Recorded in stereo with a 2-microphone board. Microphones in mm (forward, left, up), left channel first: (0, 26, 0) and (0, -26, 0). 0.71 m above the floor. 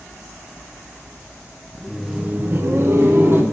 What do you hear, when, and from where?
1.8 s laughter: 10° left (ahead or behind), 0.8 m; by 3.4 s 50° right (ahead or behind), 1.3 m